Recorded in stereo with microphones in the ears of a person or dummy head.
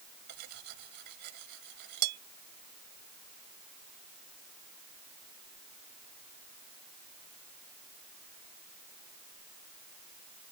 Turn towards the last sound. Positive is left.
turn(degrees=-55)  # may be behind; listen again after turning